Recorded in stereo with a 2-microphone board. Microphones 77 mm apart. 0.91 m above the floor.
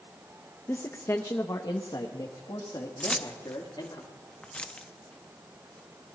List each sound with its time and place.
0.7 s a man speaking: 30° left (ahead or behind), 0.7 m; by 4.0 s 75° left (ahead or behind), 2.5 m
3.0 s keys jangling: 15° left (ahead or behind), 0.7 m